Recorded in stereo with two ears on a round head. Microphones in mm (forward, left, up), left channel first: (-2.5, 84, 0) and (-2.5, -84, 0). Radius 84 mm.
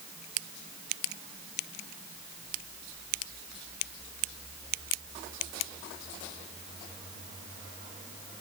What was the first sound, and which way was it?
Only background noise.